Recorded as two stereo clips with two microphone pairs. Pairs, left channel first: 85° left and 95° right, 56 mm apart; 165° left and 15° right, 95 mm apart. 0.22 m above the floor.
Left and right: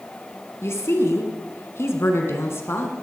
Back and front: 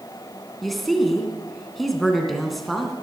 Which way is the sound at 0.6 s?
75° left.